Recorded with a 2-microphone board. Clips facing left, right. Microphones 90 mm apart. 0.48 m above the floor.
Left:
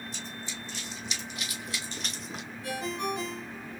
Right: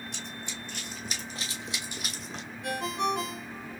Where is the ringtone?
65° right (ahead or behind), 3 m.